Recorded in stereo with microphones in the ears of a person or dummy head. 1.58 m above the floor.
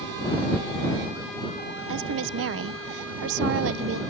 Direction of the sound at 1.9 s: 60° right (ahead or behind).